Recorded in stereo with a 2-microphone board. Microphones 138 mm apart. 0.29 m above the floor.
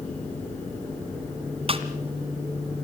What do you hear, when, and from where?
1.7 s a snare drum: 45° right (ahead or behind), 1.5 m